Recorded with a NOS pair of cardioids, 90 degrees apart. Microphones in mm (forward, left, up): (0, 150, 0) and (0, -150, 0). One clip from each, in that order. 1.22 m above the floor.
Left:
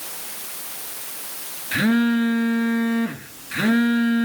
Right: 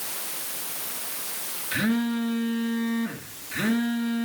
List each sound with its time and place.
1.7 s a phone buzzing: 40° left, 1.9 m